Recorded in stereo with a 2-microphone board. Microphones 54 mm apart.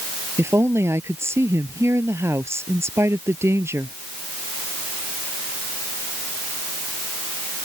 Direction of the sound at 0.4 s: 50° right (ahead or behind).